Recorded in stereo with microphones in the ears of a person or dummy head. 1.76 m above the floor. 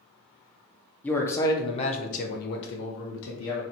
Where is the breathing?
I don't hear breathing.